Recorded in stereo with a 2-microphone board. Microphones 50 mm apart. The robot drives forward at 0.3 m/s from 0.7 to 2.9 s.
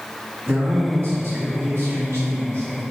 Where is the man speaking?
50° right (ahead or behind), 1.9 m.